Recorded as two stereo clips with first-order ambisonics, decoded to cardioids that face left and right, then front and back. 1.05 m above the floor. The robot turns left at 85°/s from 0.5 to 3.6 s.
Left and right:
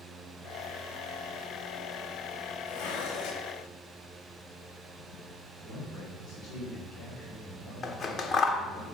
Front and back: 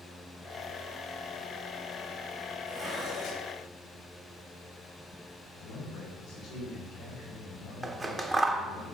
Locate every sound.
2.7 s dishes clattering: 115° left, 1.4 m; by 3.5 s 45° left, 1.4 m
5.6 s a man speaking: 45° left, 4.5 m
7.8 s scissors: 115° left, 0.7 m